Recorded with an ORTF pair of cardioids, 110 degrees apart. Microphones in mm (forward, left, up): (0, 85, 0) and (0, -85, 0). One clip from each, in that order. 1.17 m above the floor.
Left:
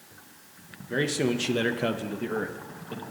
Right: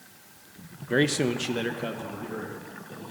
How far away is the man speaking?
About 0.7 m.